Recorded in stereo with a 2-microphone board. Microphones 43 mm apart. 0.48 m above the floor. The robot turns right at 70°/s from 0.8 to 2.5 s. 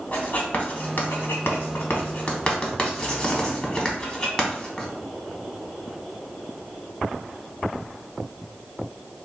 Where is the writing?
35° left (ahead or behind), 0.9 m; by 4.9 s 25° left (ahead or behind), 0.9 m.